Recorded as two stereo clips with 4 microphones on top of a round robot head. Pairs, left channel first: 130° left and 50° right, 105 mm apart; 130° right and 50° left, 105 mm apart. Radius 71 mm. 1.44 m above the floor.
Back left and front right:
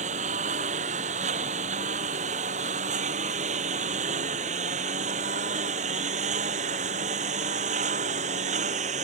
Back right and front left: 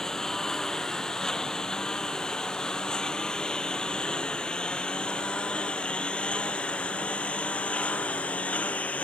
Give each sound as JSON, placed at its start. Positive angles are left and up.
{"t": 0.0, "sound": "a lawn mower", "azimuth_deg": -45}